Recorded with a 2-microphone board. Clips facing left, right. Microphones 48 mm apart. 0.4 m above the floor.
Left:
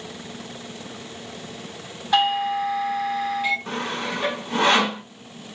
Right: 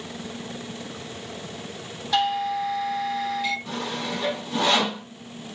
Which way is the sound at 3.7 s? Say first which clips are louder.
Left 2 dB; 45° left (ahead or behind).